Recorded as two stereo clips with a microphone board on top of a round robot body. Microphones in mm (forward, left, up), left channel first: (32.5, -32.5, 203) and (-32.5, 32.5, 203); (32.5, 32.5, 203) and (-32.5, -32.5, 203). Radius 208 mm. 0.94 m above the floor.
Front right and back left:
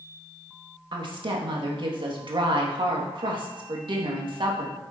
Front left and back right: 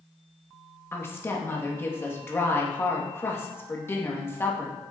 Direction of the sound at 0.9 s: 110° left.